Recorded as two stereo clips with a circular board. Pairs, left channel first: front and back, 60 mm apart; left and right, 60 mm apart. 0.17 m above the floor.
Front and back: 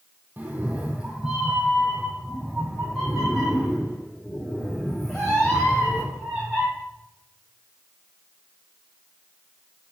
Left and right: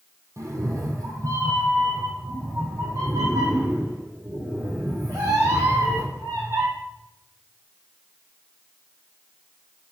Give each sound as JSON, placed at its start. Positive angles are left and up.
{"t": 0.4, "sound": "a cat meowing", "azimuth_deg": -120, "distance_m": 1.6}